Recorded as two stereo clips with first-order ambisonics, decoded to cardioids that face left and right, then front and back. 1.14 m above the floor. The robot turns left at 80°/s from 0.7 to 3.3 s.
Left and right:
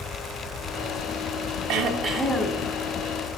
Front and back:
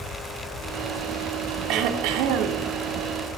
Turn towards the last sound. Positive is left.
turn(degrees=100)